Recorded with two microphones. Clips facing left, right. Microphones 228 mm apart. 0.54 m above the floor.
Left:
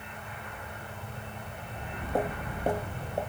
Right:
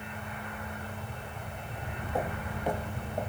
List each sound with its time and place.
1.7 s footsteps: 30° left (ahead or behind), 1.4 m